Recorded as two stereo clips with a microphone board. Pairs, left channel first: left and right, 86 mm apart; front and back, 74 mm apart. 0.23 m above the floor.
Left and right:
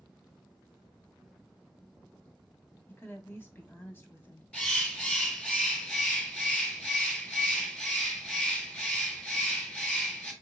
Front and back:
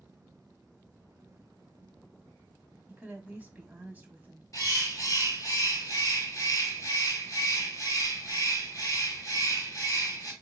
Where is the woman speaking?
130° left, 1.1 m.